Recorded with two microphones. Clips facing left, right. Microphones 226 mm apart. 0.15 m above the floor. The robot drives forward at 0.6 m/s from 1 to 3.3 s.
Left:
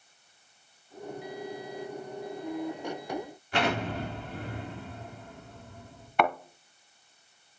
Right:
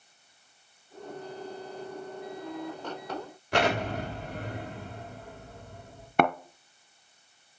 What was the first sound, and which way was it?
An explosion, 75° right (ahead or behind).